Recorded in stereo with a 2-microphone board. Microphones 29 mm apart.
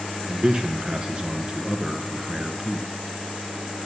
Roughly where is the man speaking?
Right.